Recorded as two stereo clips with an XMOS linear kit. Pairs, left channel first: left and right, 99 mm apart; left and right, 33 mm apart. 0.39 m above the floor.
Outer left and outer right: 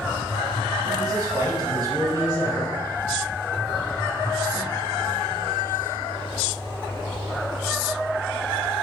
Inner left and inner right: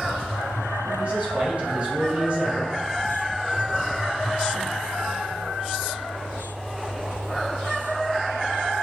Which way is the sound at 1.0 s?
40° right (ahead or behind).